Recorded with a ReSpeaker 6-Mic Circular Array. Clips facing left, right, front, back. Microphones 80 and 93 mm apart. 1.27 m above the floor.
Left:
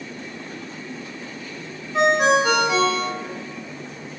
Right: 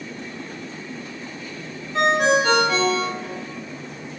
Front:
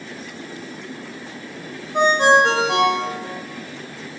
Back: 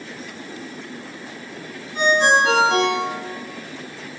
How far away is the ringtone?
About 4 m.